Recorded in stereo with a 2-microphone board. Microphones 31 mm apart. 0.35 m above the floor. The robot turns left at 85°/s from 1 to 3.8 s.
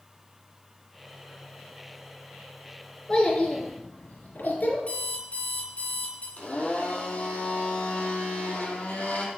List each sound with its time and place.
3.1 s a child speaking: 25° left (ahead or behind), 3.5 m; by 4.8 s 80° left, 3.5 m
4.9 s an alarm clock: 45° left (ahead or behind), 4 m
6.4 s a blender: 55° left (ahead or behind), 2.5 m